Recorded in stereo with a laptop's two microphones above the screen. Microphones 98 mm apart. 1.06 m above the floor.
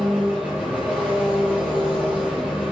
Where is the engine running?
15° right (ahead or behind), 7.5 m.